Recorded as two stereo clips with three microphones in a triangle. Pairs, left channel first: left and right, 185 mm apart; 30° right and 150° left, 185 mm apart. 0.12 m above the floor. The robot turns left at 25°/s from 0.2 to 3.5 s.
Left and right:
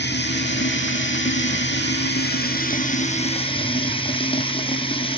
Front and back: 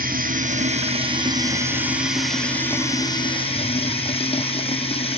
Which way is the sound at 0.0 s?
110° left.